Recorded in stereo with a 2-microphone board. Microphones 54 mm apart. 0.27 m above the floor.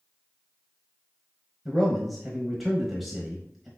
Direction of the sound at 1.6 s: Centre (ahead or behind).